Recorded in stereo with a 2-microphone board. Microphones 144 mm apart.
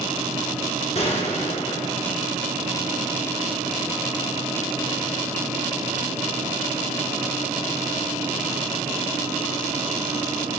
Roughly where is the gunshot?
Left.